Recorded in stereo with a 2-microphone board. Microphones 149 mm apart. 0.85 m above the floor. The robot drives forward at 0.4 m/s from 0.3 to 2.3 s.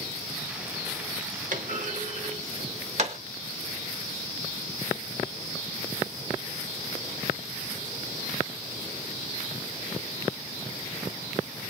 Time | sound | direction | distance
1.5 | a clunk | 60° right (ahead or behind) | 0.7 m